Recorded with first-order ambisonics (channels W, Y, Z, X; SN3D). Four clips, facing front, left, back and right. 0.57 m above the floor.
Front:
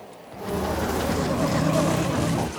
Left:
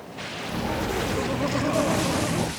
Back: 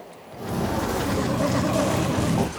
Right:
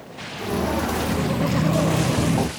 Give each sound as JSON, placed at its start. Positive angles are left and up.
{"t": 0.4, "sound": "footsteps", "azimuth_deg": -90, "distance_m": 1.5}